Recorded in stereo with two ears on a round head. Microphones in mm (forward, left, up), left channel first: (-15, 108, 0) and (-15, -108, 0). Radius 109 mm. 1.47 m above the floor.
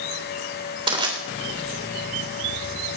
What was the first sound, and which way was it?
Crushing, 25° right (ahead or behind).